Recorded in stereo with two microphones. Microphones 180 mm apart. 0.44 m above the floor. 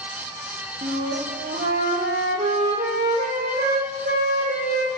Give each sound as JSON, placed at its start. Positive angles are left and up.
{"t": 0.8, "sound": "a flute", "side_deg": -60, "distance_m": 4.0}